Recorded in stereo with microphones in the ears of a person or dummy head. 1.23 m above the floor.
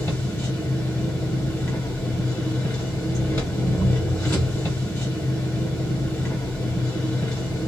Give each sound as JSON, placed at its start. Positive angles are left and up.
{"t": 0.0, "sound": "an engine running", "side_deg": 15, "distance_m": 1.0}